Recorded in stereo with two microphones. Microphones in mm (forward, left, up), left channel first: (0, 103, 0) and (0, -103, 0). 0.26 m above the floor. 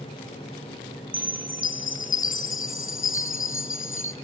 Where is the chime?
70° left (ahead or behind), 0.7 m.